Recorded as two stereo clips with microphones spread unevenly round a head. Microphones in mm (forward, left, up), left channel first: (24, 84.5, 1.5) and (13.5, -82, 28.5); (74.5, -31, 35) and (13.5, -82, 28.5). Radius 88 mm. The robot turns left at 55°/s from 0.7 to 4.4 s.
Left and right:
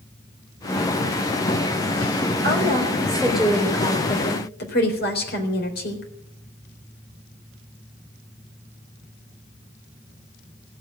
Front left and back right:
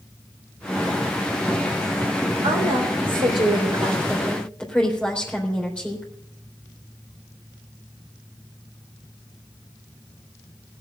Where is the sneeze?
I don't hear a sneeze.